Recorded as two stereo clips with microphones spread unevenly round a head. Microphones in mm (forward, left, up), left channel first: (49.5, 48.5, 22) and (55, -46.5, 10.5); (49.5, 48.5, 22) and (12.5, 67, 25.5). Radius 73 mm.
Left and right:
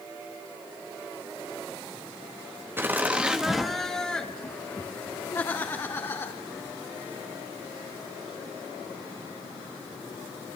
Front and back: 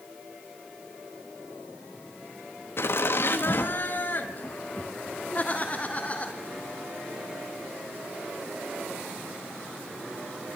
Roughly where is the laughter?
Ahead right.